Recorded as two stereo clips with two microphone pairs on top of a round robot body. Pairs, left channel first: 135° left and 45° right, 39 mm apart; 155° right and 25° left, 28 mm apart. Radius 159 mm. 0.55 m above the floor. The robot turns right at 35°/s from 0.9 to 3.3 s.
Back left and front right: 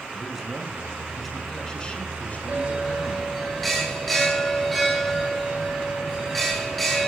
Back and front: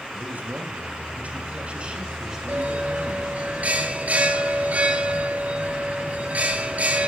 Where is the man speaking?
40° left, 7 m; by 3.3 s 125° left, 7 m.